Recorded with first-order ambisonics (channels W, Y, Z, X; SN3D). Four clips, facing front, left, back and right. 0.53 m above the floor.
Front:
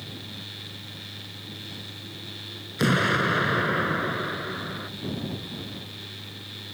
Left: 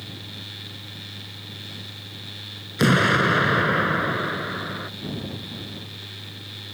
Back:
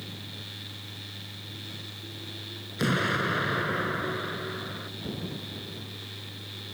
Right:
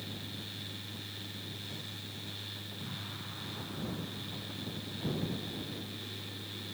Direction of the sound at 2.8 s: 75° left.